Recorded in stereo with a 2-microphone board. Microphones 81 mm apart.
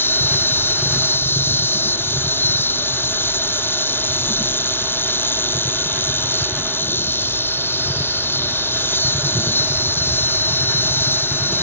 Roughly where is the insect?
Left.